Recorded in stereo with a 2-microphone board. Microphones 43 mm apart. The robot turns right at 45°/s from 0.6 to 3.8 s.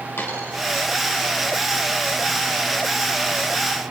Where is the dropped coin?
80° left, 3 m.